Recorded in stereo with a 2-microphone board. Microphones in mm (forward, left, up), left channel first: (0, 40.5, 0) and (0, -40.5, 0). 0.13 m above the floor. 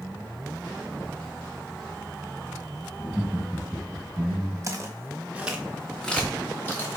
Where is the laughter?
20° right (ahead or behind), 2 m.